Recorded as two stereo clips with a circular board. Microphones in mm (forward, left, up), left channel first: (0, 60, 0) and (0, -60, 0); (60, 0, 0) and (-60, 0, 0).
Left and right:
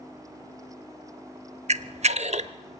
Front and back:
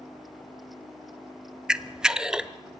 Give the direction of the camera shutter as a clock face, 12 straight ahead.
3 o'clock.